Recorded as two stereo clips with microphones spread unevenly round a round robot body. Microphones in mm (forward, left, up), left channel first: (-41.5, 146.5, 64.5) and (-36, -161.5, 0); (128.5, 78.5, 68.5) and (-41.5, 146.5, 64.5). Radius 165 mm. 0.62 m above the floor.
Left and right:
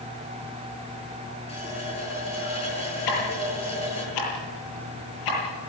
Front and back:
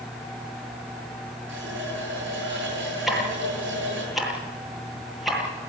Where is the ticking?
70° left, 9.5 m.